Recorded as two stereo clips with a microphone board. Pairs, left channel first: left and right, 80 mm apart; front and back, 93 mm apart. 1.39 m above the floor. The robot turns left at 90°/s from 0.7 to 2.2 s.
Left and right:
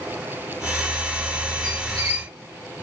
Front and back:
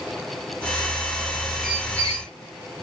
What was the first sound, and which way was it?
A squeak, 90° right.